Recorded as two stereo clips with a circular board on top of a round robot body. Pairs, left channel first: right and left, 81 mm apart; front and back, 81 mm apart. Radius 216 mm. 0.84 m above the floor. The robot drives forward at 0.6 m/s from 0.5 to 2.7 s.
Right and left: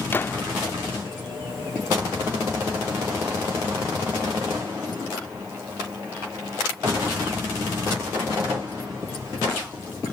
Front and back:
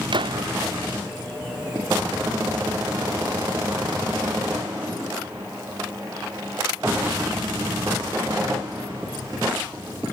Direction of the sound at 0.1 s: 155° right.